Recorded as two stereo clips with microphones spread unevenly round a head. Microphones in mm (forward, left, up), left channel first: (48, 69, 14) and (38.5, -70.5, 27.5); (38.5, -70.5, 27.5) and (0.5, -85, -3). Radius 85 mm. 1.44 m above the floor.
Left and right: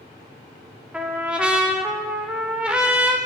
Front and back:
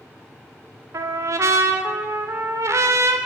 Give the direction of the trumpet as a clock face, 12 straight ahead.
6 o'clock.